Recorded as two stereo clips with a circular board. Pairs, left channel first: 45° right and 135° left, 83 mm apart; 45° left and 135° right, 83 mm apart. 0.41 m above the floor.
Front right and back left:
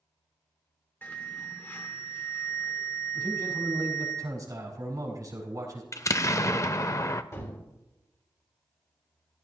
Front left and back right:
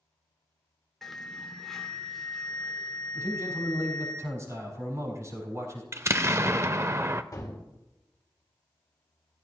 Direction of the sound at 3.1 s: 175° left.